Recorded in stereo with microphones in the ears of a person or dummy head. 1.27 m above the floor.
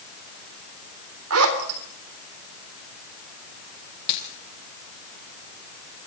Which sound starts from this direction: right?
A zipper, at 1.3 s.